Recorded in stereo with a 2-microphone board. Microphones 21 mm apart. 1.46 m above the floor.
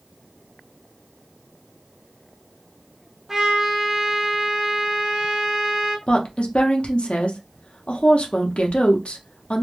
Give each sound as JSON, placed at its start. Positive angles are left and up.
{"t": 3.3, "sound": "a trumpet", "side_deg": -15, "distance_m": 0.6}
{"t": 6.1, "sound": "a woman speaking", "side_deg": 65, "distance_m": 0.7}